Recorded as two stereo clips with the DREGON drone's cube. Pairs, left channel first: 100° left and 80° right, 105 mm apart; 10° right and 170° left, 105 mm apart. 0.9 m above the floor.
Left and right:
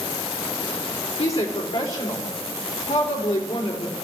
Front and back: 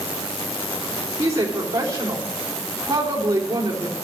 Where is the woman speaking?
105° left, 3 m.